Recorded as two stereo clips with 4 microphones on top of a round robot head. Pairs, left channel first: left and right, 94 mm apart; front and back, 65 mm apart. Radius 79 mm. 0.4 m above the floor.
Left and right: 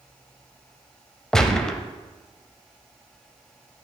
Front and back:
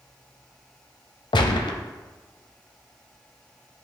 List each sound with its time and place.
1.3 s a gunshot: 5° left, 0.6 m